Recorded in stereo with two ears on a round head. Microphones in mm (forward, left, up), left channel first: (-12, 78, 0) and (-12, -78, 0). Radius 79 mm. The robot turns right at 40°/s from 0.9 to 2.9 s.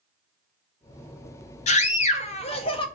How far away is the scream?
About 0.5 m.